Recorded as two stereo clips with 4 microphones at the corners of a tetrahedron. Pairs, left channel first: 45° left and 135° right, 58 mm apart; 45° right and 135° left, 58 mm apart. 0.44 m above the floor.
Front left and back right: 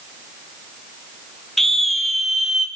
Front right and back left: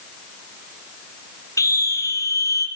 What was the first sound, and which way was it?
A scream, 40° right.